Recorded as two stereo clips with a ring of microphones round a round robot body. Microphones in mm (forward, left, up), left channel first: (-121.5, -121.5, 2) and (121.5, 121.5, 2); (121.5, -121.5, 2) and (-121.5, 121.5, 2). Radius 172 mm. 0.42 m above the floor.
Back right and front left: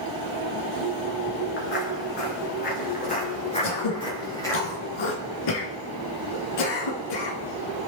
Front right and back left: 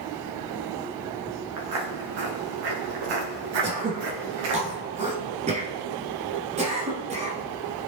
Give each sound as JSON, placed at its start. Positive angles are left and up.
{"t": 1.6, "sound": "footsteps", "azimuth_deg": 165, "distance_m": 5.0}
{"t": 3.6, "sound": "throat clearing", "azimuth_deg": -155, "distance_m": 1.8}